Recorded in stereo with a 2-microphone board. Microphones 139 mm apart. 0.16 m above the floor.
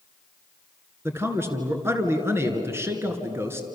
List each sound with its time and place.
1.1 s a man speaking: 15° right (ahead or behind), 3 m